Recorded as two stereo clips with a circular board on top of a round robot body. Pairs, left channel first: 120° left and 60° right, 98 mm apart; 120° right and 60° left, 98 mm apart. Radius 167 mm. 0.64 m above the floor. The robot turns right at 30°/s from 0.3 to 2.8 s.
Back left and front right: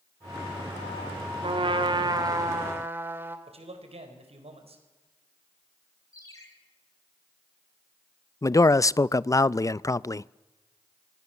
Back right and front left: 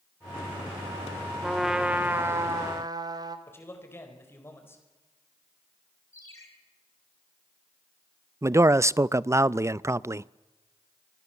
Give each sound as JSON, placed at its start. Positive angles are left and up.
{"t": 1.4, "sound": "a trumpet", "azimuth_deg": -30, "distance_m": 2.0}
{"t": 3.5, "sound": "a man speaking", "azimuth_deg": -55, "distance_m": 4.5}
{"t": 6.1, "sound": "a ringtone", "azimuth_deg": 175, "distance_m": 4.0}
{"t": 8.4, "sound": "a man speaking", "azimuth_deg": 95, "distance_m": 0.6}